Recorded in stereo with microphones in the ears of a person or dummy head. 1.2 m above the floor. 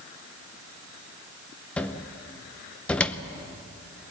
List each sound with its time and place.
1.8 s a cupboard door: 10° left (ahead or behind), 0.9 m